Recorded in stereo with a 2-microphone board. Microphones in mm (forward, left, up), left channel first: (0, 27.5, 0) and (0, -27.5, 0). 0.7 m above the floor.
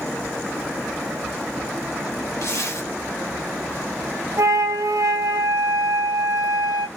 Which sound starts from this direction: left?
A zipper, at 2.4 s.